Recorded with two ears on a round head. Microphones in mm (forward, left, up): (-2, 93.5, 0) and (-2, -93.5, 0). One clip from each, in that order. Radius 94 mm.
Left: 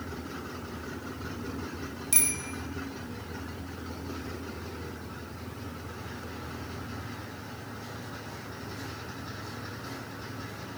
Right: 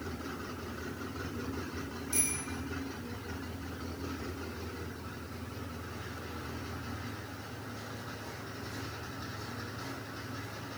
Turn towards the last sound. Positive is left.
turn(degrees=85)